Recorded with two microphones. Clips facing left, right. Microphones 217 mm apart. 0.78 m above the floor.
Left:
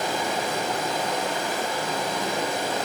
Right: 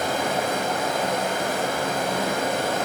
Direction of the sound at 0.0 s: 60° right (ahead or behind).